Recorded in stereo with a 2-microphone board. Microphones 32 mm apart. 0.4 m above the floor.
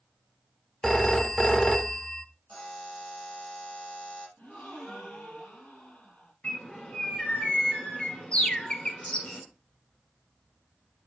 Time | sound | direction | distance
0.8 | a phone ringing | 15° left (ahead or behind) | 0.5 m
2.5 | a buzzer | 50° left (ahead or behind) | 5 m
4.4 | a gasp | 65° left (ahead or behind) | 4.5 m
6.4 | a bird | 35° left (ahead or behind) | 2.5 m